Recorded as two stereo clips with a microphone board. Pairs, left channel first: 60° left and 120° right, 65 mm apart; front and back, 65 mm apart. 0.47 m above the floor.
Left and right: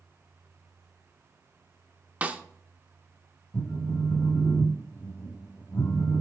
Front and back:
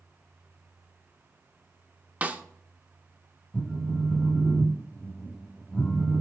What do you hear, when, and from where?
2.2 s a snare drum: 150° right, 0.5 m
3.5 s a phone buzzing: 75° left, 0.6 m